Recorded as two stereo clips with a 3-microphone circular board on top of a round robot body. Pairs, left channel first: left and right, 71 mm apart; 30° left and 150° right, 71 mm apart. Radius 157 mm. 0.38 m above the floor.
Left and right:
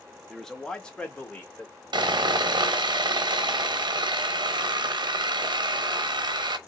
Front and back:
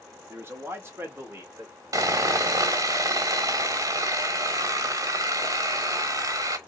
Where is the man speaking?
175° left, 1.2 m; by 1.7 s 160° left, 2.0 m.